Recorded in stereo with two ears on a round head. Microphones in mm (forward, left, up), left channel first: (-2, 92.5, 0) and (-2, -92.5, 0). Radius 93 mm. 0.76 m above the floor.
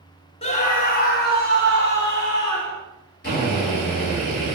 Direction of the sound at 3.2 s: 45° left (ahead or behind).